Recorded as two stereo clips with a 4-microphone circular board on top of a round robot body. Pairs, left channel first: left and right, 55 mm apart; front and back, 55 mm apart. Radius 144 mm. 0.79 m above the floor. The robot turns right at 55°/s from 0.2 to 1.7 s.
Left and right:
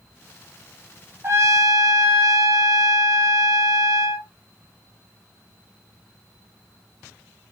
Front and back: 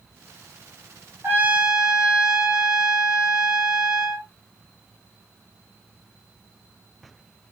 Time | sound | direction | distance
1.2 | a trumpet | 130° right | 1.3 m